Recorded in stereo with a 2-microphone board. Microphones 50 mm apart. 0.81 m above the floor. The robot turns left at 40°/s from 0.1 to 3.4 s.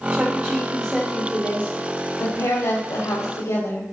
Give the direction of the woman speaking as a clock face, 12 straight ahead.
5 o'clock.